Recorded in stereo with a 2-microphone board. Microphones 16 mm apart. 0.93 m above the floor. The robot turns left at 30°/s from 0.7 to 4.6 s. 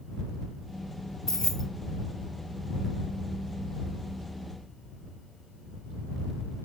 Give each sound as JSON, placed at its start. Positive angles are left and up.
{"t": 1.3, "sound": "keys jangling", "side_deg": 30}